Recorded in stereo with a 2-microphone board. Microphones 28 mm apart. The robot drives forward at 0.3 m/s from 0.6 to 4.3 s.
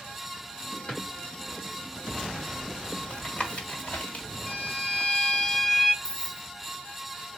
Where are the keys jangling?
25° left (ahead or behind), 0.6 m.